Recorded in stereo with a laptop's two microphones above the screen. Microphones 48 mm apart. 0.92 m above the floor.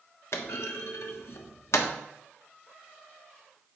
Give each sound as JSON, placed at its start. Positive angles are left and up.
{"t": 0.3, "sound": "a clunk", "side_deg": 65, "distance_m": 1.2}